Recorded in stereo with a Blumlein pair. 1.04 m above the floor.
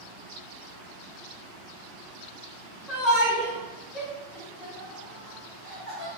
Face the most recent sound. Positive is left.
turn(degrees=20)